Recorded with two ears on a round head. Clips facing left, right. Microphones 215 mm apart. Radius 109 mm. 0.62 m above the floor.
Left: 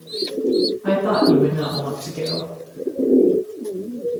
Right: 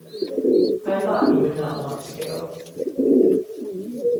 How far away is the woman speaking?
About 7 m.